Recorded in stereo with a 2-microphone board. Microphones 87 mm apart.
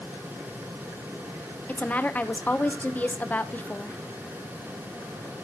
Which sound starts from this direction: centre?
A woman speaking, at 1.7 s.